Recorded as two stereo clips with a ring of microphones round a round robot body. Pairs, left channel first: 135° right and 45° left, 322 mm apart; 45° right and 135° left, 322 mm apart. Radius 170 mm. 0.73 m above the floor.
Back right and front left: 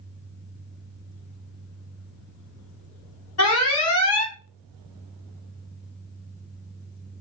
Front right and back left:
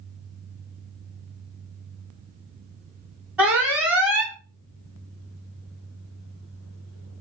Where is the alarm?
140° right, 2.5 m.